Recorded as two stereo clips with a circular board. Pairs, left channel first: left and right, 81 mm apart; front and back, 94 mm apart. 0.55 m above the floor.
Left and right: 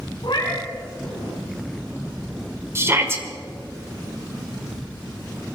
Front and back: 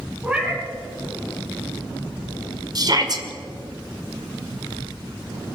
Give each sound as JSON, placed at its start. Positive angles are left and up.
{"t": 0.2, "sound": "a cat meowing", "azimuth_deg": 100, "distance_m": 3.5}
{"t": 2.8, "sound": "a shout", "azimuth_deg": -145, "distance_m": 1.9}